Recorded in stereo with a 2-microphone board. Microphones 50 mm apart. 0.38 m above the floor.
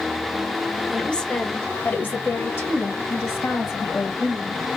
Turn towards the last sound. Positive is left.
turn(degrees=65)  # may be behind; listen again after turning